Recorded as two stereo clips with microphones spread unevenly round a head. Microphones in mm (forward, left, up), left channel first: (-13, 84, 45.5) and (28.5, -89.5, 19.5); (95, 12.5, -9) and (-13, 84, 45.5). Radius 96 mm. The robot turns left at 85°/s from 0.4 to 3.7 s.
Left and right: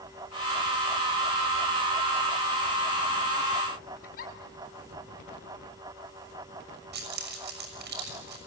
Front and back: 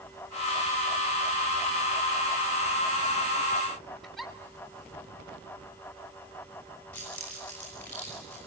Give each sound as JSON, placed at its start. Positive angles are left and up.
{"t": 4.0, "sound": "a giggle", "azimuth_deg": 60, "distance_m": 6.0}
{"t": 6.9, "sound": "keys jangling", "azimuth_deg": -115, "distance_m": 6.0}